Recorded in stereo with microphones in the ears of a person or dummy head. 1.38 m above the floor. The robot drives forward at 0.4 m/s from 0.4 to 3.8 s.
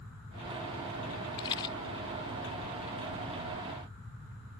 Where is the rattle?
25° left (ahead or behind); by 1.8 s 30° left (ahead or behind).